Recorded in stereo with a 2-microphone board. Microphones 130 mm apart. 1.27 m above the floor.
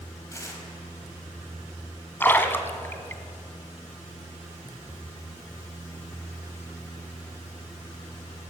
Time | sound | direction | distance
0.3 | tearing paper | 20° left (ahead or behind) | 4.5 m
2.2 | a splash | 15° left (ahead or behind) | 1.5 m